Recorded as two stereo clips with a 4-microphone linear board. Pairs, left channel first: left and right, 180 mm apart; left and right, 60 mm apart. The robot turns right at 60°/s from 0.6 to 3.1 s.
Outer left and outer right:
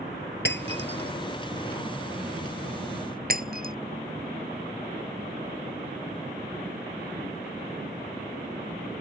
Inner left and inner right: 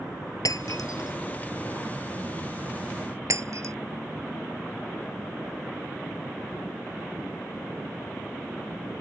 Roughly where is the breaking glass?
Left.